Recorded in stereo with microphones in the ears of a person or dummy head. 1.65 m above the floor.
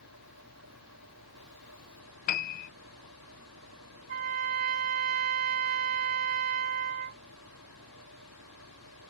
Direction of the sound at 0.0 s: 90° right.